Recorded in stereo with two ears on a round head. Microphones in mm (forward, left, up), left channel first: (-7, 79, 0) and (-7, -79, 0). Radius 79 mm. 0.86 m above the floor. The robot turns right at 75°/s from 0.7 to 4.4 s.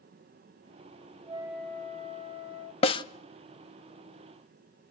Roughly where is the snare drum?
Left.